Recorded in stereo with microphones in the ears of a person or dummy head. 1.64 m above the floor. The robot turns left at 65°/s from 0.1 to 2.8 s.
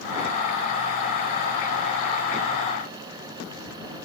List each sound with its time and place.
Only background noise.